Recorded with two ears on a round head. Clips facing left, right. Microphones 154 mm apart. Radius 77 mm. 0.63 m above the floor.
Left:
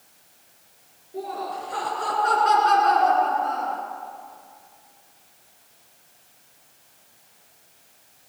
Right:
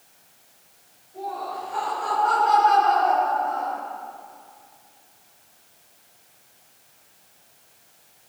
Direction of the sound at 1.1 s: 65° left (ahead or behind).